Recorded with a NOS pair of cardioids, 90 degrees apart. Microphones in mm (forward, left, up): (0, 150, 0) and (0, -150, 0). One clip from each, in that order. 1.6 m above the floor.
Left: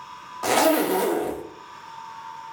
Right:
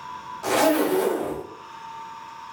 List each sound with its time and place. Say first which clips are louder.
0.4 s a zipper: left 1 dB; 30° left, 0.5 m